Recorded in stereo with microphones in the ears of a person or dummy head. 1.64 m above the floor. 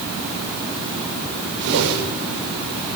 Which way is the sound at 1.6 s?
80° right.